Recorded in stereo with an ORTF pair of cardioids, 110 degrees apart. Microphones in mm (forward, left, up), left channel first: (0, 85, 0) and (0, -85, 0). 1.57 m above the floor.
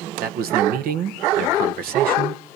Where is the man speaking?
70° right, 1.6 m.